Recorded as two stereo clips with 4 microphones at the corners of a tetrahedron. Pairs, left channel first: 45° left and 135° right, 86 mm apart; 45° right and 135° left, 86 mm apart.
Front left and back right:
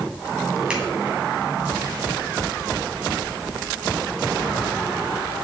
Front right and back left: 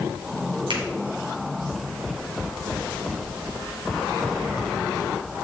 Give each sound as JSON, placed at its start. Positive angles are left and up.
{"t": 0.7, "sound": "a finger snap", "azimuth_deg": 145, "distance_m": 2.5}